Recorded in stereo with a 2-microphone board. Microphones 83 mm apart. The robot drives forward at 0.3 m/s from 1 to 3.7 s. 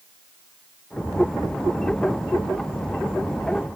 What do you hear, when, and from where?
Only background noise.